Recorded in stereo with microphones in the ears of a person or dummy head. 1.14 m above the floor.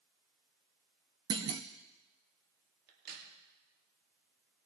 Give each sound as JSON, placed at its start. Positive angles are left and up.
{"t": 1.3, "sound": "a clunk", "side_deg": -20, "distance_m": 0.6}
{"t": 2.9, "sound": "a crack", "side_deg": -65, "distance_m": 2.5}